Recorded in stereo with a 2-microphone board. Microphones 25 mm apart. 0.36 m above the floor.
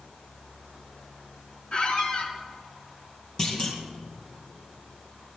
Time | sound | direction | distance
1.7 | a squeak | 45° left (ahead or behind) | 1.8 m
3.4 | a clunk | 20° left (ahead or behind) | 2.5 m